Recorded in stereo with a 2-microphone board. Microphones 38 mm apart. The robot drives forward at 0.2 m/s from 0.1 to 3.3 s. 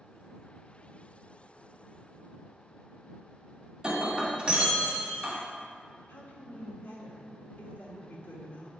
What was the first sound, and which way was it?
Breaking glass, 20° right (ahead or behind).